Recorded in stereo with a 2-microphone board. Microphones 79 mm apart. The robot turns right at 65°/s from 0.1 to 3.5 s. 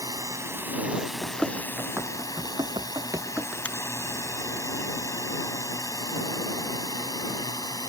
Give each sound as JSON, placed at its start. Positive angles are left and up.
{"t": 0.0, "sound": "a drone", "side_deg": -55}
{"t": 1.2, "sound": "running footsteps", "side_deg": 20}
{"t": 3.6, "sound": "a finger snap", "side_deg": 20}